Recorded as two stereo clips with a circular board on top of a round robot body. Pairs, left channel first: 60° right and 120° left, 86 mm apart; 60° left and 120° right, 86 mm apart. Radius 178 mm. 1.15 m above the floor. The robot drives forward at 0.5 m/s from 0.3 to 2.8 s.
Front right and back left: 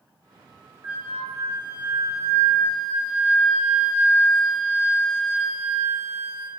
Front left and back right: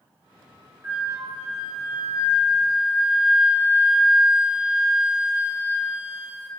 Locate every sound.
0.8 s a flute: straight behind, 2 m